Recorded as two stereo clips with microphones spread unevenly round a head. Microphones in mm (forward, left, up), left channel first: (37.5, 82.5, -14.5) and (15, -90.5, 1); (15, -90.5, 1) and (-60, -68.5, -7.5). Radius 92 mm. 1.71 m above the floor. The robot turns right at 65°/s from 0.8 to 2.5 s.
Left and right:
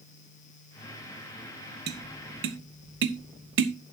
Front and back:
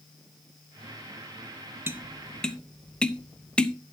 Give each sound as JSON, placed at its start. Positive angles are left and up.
{"t": 1.9, "sound": "tapping", "azimuth_deg": -135, "distance_m": 0.9}